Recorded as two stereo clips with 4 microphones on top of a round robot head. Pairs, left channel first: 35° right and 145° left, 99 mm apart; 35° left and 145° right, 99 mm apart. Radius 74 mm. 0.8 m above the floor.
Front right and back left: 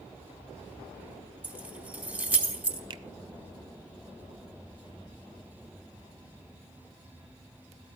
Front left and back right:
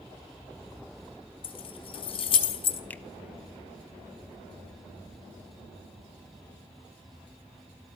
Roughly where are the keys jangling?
Left.